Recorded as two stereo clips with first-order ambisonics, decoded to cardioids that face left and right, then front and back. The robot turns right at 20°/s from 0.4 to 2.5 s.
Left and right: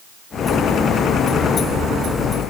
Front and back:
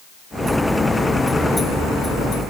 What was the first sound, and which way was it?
Only background noise.